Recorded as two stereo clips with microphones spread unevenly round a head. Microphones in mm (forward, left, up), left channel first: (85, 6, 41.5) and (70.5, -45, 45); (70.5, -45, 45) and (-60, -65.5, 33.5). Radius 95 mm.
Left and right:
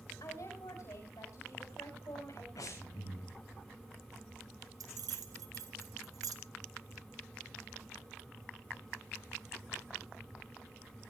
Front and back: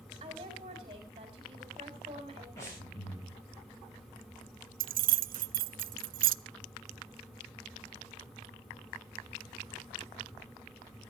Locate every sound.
0.2 s a woman speaking: 125° left, 4.5 m
2.6 s breathing: 85° left, 8.5 m
4.8 s keys jangling: 155° right, 0.5 m